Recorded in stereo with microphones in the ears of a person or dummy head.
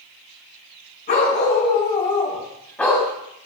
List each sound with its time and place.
1.1 s a dog barking: 40° left (ahead or behind), 5 m; by 3.1 s centre (ahead or behind), 3.5 m